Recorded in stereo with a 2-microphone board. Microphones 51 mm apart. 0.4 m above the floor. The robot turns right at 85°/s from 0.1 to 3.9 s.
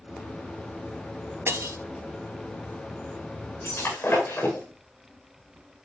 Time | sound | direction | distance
1.5 | breaking glass | 50° right (ahead or behind) | 1.1 m
3.6 | breaking glass | 65° left (ahead or behind) | 9.5 m